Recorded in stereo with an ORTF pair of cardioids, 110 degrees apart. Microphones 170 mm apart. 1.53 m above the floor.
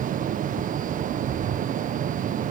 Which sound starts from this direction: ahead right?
A fan, at 0.0 s.